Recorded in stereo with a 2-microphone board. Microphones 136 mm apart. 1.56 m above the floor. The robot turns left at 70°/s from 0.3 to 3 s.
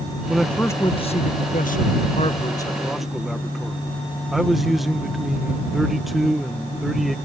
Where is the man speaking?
175° right; by 7.2 s straight ahead.